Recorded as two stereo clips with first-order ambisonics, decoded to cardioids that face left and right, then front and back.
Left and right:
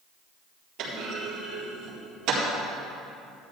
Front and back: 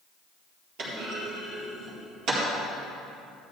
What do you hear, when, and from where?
0.8 s a clunk: 135° right, 4 m